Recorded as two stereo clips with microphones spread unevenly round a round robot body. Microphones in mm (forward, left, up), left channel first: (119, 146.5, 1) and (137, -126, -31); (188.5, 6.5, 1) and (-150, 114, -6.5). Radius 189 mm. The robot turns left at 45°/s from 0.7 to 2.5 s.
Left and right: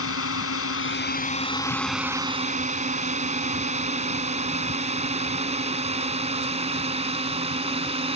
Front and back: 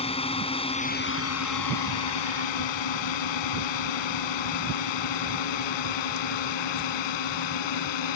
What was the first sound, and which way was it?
A drone, 55° left.